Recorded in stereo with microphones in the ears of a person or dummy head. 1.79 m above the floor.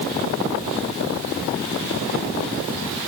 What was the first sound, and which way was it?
Only background noise.